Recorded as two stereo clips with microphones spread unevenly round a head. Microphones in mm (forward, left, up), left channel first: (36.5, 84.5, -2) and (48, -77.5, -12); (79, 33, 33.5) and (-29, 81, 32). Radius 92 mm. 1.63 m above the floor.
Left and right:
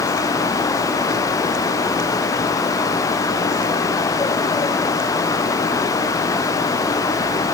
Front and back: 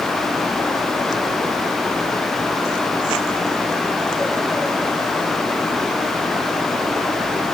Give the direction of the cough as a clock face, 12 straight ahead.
I don't hear a cough.